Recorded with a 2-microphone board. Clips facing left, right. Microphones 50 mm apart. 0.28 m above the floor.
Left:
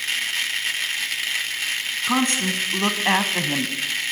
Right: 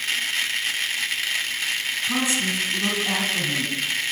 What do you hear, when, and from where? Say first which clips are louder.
2.0 s a woman speaking: left 4 dB; 50° left (ahead or behind), 2.5 m